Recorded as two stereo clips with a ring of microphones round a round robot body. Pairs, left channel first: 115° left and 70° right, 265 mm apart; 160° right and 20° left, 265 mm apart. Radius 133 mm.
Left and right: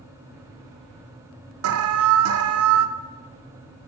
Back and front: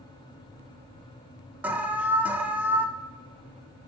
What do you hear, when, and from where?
1.6 s an alarm: 60° right, 0.6 m